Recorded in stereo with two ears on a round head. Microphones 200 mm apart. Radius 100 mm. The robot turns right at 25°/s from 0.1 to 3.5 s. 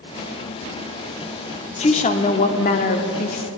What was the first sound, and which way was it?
A woman speaking, 55° left.